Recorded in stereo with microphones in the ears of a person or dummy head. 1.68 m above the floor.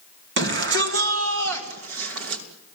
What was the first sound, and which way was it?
A shout, 55° right (ahead or behind).